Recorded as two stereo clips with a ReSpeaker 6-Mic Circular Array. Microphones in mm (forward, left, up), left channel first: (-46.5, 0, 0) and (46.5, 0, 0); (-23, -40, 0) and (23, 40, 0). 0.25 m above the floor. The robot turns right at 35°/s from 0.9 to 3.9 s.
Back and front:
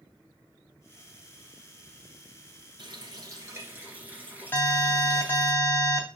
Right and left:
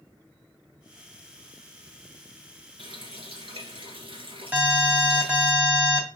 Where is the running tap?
35° left, 2.5 m; by 5.5 s 75° left, 2.5 m.